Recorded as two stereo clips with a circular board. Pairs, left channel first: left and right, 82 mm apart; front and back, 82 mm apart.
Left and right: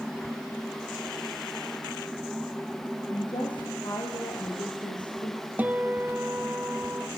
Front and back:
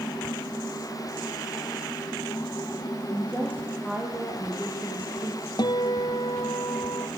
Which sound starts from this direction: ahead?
A guitar, at 5.6 s.